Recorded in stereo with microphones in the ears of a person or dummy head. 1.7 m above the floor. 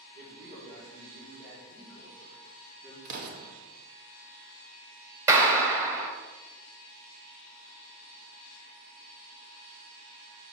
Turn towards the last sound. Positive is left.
turn(degrees=-15)  # may be behind; listen again after turning